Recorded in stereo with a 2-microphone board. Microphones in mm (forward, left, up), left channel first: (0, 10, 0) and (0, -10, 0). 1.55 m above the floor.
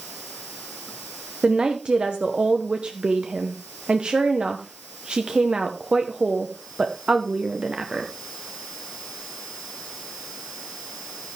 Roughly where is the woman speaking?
Right.